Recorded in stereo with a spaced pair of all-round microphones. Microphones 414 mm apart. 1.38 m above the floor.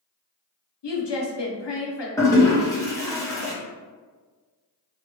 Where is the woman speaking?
80° left, 0.7 m.